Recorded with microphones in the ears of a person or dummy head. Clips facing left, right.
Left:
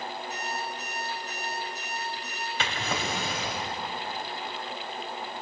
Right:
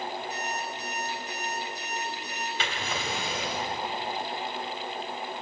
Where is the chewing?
No chewing in this recording.